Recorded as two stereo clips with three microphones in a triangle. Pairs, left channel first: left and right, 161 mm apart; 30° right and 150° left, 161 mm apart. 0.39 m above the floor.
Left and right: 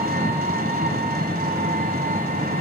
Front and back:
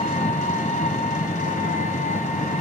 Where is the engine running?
65° right, 1.2 m.